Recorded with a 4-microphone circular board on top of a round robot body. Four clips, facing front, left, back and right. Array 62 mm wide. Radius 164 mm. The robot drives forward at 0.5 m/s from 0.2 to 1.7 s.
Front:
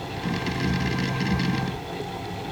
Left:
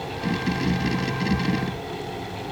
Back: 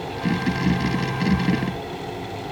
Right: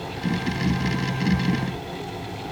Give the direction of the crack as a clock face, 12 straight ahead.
I don't hear a crack.